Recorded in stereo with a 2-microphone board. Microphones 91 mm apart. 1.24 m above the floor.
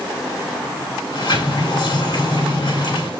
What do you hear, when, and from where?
1.1 s a sliding door: 65° left (ahead or behind), 2.0 m